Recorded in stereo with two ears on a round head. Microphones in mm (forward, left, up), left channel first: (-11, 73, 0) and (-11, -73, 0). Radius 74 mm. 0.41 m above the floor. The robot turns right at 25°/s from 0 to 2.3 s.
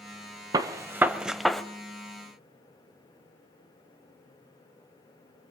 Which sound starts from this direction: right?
A gunshot, at 0.5 s.